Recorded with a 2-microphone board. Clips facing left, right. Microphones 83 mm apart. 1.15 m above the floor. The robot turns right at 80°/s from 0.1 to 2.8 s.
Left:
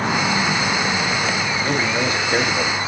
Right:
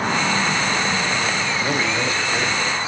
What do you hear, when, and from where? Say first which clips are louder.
1.6 s a man speaking: left 2 dB; 10° right, 2.0 m; by 2.8 s 90° left, 2.0 m